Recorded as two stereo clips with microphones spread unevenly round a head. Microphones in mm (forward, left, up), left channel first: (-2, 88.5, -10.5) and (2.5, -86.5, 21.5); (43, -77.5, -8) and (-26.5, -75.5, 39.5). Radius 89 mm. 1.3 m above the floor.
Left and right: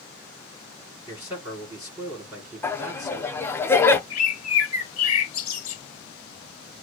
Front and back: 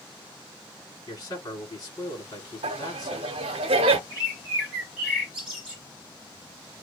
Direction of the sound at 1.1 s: 10° right.